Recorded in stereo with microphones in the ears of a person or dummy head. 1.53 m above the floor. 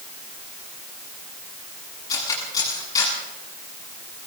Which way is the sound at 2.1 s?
20° left (ahead or behind).